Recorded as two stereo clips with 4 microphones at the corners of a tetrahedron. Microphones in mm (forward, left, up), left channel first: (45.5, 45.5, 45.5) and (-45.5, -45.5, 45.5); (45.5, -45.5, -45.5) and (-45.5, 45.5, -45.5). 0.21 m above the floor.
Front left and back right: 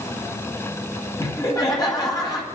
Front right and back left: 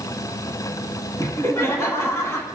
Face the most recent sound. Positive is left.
turn(degrees=10)